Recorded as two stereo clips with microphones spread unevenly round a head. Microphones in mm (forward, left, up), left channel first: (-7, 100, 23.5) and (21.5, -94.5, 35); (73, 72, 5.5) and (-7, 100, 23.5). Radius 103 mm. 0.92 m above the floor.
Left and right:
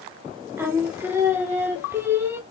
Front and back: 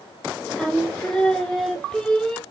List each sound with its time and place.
0.6 s singing: 15° right, 0.9 m